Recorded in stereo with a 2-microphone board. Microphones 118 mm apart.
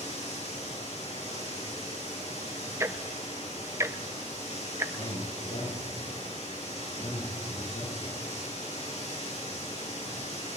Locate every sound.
0.0 s running water: 70° left (ahead or behind), 9 m
2.8 s ticking: 25° right (ahead or behind), 0.6 m
5.0 s a man speaking: 70° left (ahead or behind), 6 m